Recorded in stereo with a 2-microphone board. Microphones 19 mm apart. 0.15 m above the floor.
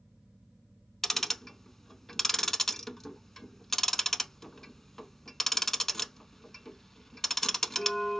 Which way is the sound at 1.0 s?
15° left (ahead or behind).